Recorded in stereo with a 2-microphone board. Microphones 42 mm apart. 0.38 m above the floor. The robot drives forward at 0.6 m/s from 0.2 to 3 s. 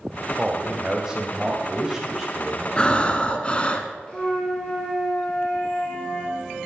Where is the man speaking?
15° right (ahead or behind), 1.1 m; by 2.7 s 10° right (ahead or behind), 2 m.